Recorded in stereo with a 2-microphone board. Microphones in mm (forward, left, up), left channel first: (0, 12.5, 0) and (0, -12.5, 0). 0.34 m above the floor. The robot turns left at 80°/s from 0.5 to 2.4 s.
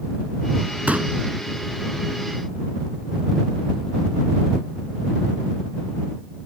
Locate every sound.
0.9 s a pop: 75° right (ahead or behind); by 1.1 s 70° right (ahead or behind)